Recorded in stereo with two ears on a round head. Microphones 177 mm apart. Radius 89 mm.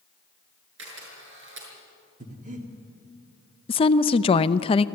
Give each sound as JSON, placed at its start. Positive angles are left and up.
{"t": 0.8, "sound": "a camera shutter", "side_deg": -70, "distance_m": 6.0}
{"t": 2.2, "sound": "breathing", "side_deg": -40, "distance_m": 2.5}
{"t": 3.7, "sound": "a woman speaking", "side_deg": 25, "distance_m": 0.5}